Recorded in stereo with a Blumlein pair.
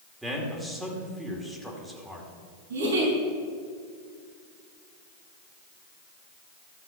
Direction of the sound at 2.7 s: 70° right.